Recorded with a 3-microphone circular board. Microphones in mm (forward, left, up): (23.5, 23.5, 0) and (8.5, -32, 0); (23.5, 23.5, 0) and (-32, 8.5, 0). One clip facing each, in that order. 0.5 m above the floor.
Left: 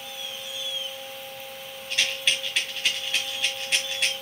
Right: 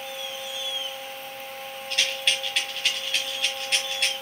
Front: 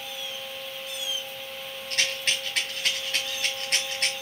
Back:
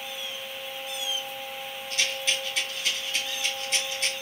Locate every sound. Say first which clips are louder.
1.9 s a rattle: even, front 1 dB; 15° right, 1.5 m